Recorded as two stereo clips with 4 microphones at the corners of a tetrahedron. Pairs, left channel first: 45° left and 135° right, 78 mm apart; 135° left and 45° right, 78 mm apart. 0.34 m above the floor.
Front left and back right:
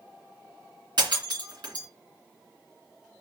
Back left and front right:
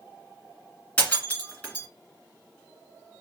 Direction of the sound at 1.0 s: 155° right.